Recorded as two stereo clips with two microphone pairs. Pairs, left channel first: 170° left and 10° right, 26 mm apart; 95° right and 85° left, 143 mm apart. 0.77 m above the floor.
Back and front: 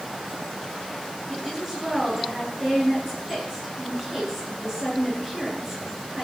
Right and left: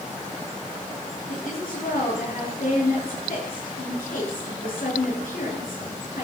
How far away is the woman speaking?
About 9 m.